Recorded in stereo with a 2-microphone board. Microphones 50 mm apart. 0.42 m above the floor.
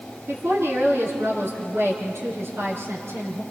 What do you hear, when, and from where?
0.3 s a woman speaking: 55° right (ahead or behind), 6 m